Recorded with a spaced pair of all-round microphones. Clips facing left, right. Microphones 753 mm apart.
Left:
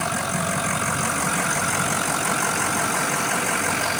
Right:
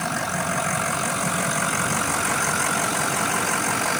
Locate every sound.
Only background noise.